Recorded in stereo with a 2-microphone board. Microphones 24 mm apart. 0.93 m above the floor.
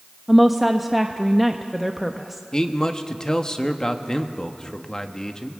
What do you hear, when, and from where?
0.3 s a woman speaking: centre (ahead or behind), 0.7 m
2.5 s a man speaking: 30° left (ahead or behind), 1.2 m